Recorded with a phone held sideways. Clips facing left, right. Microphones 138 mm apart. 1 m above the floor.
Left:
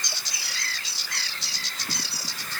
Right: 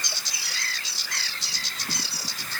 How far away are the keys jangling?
I don't hear keys jangling.